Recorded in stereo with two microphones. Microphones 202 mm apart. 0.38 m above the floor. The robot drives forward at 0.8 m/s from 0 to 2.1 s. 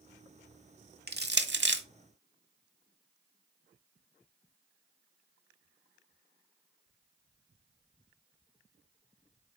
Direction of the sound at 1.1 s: 55° right (ahead or behind).